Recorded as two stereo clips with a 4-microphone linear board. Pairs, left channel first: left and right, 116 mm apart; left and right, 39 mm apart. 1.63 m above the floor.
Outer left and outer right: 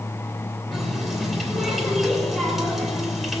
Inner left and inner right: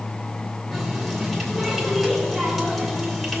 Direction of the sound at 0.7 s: Centre (ahead or behind).